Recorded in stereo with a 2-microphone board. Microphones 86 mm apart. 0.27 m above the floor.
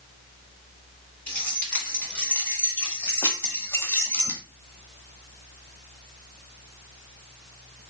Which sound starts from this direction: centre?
Keys jangling, at 1.3 s.